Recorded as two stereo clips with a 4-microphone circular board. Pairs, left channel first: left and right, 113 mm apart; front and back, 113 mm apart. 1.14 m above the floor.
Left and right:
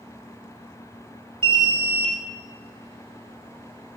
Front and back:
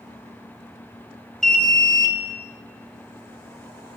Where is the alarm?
85° right, 1.5 m.